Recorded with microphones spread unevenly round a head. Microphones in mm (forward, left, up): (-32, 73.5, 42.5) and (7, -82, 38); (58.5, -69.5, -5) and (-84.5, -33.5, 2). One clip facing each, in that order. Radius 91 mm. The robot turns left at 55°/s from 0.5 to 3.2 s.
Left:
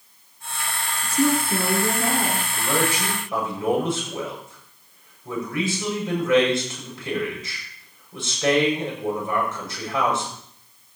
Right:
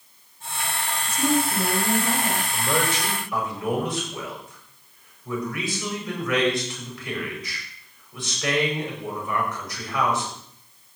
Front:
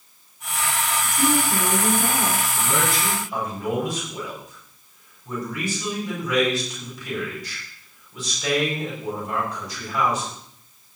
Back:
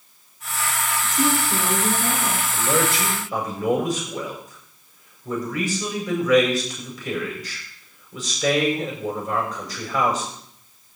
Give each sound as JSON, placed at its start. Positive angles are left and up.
{"t": 1.0, "sound": "a woman speaking", "azimuth_deg": 115, "distance_m": 4.0}
{"t": 2.5, "sound": "a man speaking", "azimuth_deg": -155, "distance_m": 7.0}